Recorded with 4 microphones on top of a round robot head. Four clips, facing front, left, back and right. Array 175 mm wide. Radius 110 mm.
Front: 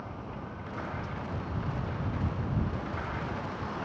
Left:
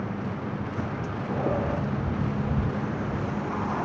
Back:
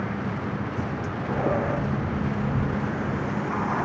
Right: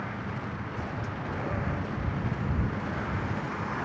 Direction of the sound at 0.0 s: 150° left.